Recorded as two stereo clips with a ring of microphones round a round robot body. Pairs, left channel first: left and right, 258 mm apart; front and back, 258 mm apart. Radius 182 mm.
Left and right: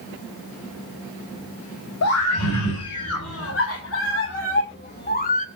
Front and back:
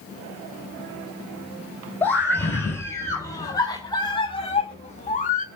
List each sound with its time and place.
2.0 s a scream: 85° left, 3 m; by 5.5 s 45° left, 1.5 m